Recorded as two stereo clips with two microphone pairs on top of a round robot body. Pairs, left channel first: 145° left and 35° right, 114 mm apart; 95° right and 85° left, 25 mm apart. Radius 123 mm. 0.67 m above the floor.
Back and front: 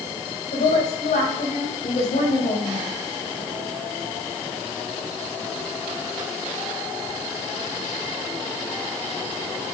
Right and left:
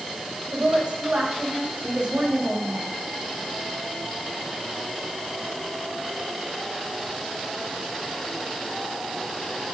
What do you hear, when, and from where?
0.5 s a woman speaking: 130° left, 5 m